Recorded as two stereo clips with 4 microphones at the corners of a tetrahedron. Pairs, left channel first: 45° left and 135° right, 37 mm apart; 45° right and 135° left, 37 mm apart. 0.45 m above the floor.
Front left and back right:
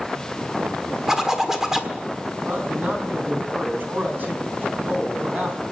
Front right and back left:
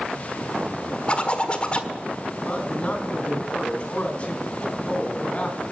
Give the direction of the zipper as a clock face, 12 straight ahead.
2 o'clock.